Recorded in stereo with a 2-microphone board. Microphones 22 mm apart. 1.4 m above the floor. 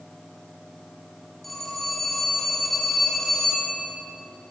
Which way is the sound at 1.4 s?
10° left (ahead or behind).